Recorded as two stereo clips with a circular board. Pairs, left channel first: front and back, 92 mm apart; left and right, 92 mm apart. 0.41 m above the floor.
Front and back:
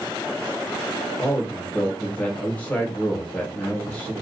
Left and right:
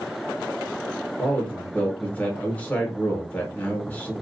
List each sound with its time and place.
1.2 s a man speaking: 50° left, 0.9 m